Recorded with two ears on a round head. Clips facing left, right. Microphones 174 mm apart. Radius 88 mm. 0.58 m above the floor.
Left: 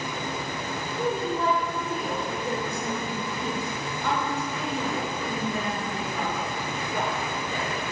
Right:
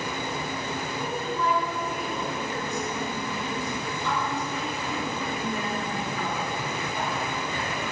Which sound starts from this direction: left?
A woman speaking, at 0.9 s.